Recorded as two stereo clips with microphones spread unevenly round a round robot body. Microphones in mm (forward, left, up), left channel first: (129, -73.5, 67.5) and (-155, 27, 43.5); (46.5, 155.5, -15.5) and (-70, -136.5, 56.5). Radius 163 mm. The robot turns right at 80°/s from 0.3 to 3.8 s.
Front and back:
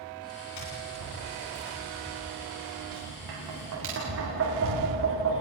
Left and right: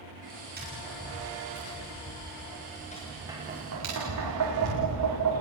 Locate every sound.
0.6 s tapping: 50° right, 10 m; by 5.4 s 150° right, 10 m